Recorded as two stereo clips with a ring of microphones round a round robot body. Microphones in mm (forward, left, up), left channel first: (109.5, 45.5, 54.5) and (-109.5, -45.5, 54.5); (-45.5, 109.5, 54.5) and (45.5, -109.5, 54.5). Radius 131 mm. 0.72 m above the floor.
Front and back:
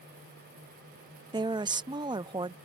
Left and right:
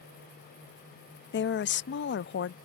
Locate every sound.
1.3 s a woman speaking: 135° left